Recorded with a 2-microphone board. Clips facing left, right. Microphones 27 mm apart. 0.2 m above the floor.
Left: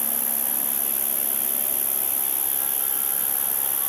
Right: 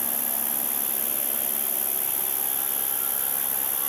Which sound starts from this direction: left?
An insect, at 0.0 s.